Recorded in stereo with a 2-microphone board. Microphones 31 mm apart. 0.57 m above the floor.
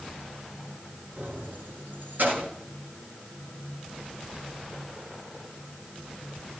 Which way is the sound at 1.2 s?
85° right.